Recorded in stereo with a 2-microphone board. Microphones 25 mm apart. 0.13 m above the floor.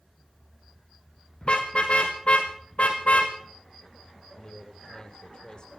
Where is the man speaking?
35° left (ahead or behind), 3 m.